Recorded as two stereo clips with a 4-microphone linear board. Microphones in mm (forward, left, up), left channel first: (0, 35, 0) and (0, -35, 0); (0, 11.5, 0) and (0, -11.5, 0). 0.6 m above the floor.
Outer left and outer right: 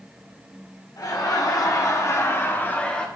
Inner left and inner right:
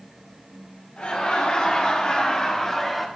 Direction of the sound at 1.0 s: 60° left (ahead or behind).